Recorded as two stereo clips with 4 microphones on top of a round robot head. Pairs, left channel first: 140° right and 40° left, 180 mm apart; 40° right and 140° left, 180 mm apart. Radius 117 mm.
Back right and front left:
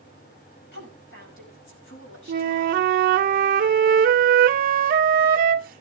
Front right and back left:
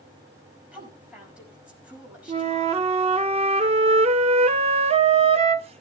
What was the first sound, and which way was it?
A woman speaking, 135° right.